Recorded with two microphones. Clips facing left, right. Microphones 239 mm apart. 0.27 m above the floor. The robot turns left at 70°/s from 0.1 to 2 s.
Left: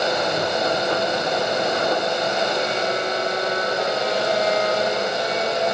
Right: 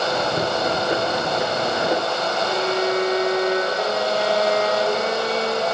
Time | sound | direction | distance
2.5 | a violin | 80° right | 4.5 m